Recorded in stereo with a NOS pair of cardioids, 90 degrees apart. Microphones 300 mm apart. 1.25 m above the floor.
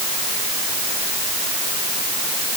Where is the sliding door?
No sliding door in this recording.